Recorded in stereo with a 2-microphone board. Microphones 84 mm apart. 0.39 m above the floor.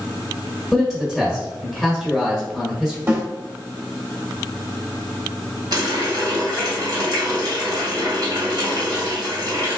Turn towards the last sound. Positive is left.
turn(degrees=-50)  # may be behind; listen again after turning